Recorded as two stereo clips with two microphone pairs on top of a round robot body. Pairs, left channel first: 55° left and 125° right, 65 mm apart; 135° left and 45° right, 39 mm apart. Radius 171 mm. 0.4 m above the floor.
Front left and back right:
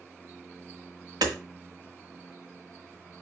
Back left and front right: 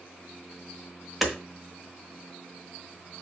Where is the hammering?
135° right, 1.6 m.